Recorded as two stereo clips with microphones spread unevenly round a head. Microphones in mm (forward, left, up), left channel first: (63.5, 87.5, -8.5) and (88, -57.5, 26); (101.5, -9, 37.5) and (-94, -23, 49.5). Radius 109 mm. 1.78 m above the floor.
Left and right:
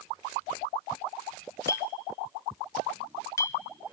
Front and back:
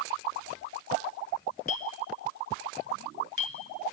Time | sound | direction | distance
1.7 | a clink | 25° left | 1.0 m